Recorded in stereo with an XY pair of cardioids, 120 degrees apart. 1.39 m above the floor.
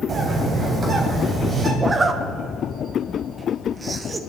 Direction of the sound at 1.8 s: 25° right.